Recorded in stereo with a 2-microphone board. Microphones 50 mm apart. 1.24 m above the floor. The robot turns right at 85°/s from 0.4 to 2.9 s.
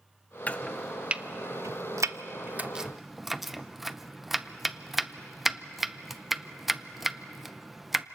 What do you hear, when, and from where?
0.5 s chopping: 30° left (ahead or behind), 0.6 m; by 8.1 s 5° right (ahead or behind), 0.6 m